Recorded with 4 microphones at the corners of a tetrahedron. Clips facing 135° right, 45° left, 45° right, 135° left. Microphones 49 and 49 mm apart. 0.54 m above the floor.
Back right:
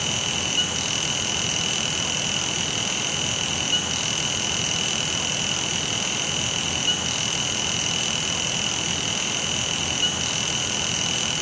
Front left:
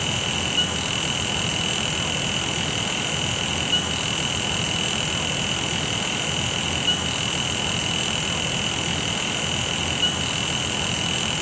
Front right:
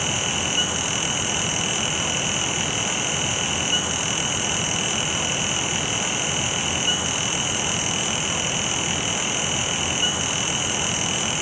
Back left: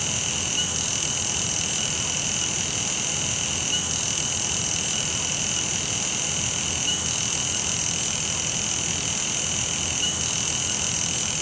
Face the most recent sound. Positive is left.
No sound to turn to.